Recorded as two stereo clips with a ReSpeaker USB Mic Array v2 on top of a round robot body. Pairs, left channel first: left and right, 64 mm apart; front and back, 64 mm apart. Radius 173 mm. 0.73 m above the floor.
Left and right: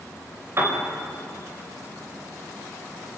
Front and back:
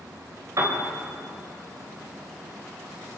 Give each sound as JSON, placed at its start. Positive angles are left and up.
{"t": 0.6, "sound": "a piano", "azimuth_deg": -145, "distance_m": 4.0}